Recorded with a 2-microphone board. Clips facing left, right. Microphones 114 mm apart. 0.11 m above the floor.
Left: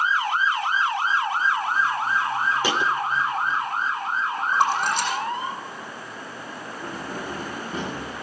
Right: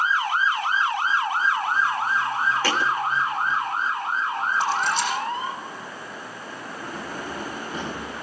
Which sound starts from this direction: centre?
A thud, at 2.6 s.